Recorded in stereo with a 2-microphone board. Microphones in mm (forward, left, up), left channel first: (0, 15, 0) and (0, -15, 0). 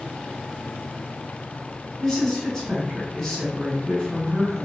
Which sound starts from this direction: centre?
A woman speaking, at 2.0 s.